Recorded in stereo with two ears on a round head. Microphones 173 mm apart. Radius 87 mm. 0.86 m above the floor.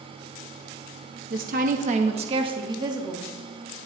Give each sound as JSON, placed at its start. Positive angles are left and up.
{"t": 1.3, "sound": "a woman speaking", "side_deg": -50, "distance_m": 1.1}